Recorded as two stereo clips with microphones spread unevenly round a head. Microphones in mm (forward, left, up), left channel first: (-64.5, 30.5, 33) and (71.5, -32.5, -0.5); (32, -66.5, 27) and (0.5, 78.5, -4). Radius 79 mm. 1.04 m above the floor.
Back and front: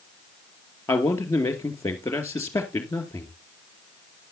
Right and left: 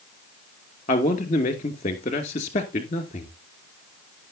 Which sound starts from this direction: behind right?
A man speaking, at 0.9 s.